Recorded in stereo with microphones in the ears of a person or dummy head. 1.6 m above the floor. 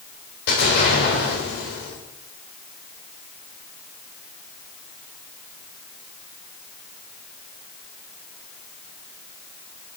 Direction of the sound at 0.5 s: 55° left (ahead or behind).